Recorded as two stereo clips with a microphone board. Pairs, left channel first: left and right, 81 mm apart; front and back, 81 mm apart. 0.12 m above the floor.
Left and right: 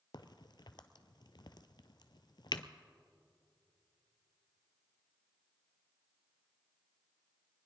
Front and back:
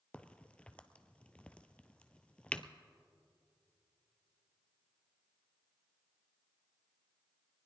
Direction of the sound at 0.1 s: 75° left.